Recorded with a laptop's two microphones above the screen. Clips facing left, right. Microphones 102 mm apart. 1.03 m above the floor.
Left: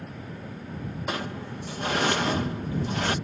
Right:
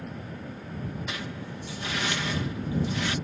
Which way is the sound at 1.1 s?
45° left (ahead or behind).